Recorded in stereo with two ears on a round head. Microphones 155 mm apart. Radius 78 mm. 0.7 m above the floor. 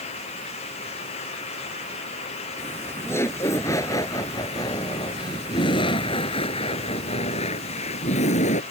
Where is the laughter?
10° left (ahead or behind); by 8.6 s 40° left (ahead or behind).